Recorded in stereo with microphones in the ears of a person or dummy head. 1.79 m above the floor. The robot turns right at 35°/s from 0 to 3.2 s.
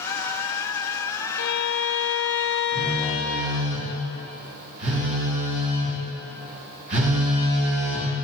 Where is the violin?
65° left, 0.6 m; by 3.5 s 130° left, 0.6 m.